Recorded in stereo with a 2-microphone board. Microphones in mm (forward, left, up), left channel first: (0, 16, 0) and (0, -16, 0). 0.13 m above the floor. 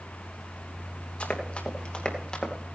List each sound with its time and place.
1.2 s running footsteps: 35° left (ahead or behind), 3 m; by 2.5 s 20° left (ahead or behind), 2.5 m